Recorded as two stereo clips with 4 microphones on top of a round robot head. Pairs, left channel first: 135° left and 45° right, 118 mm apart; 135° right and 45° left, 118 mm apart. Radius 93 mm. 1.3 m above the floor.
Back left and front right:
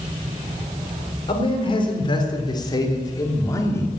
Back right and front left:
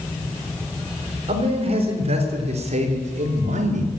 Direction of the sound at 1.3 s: 85° left.